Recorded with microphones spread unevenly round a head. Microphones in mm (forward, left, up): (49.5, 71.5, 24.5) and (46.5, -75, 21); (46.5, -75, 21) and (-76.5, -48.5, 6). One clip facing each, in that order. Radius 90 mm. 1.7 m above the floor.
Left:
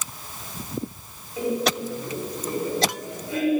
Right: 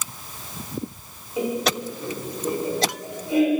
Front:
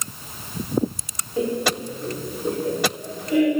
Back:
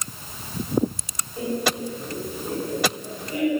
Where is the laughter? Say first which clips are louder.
Even, front 3 dB; 20° right, 7 m.